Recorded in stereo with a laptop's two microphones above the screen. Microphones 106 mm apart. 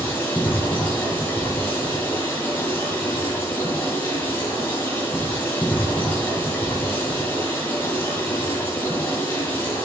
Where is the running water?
20° left (ahead or behind), 2.0 m.